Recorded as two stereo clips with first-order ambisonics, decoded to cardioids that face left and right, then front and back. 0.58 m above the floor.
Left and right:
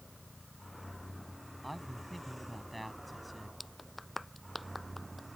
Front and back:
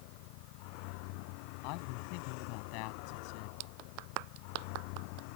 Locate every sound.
0.0 s a vehicle: 5° left; by 5.4 s 5° right
1.6 s a man speaking: straight ahead
3.6 s a clap: 170° left